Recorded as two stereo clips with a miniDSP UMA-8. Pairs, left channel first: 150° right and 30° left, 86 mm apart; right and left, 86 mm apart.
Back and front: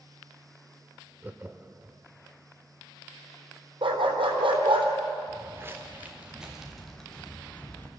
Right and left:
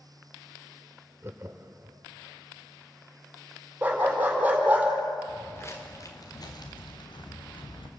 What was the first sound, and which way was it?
Laughter, 75° left.